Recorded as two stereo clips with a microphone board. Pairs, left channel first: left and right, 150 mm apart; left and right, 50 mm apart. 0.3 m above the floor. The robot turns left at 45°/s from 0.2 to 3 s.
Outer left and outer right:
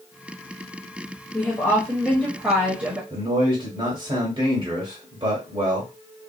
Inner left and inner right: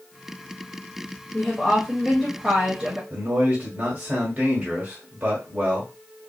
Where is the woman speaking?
50° left, 1.0 m; by 3.0 s 25° right, 1.0 m.